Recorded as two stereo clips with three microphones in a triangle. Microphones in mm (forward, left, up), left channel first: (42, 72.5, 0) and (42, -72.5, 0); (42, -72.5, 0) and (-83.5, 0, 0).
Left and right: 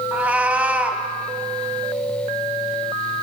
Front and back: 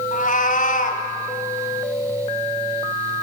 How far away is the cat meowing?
About 2.5 m.